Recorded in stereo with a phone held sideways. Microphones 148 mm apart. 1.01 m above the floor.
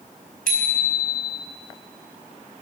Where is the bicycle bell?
75° right (ahead or behind), 4.5 m.